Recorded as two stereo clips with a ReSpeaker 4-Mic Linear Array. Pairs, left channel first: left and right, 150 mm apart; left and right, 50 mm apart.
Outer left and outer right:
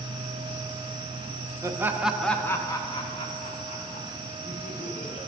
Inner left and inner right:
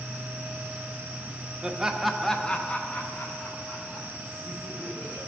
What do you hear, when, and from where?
1.6 s laughter: 20° right (ahead or behind), 0.7 m; by 5.2 s 50° left (ahead or behind), 1.8 m